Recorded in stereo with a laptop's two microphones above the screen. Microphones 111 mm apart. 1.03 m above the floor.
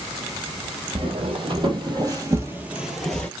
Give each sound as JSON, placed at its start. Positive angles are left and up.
{"t": 0.9, "sound": "footsteps", "side_deg": -55, "distance_m": 1.8}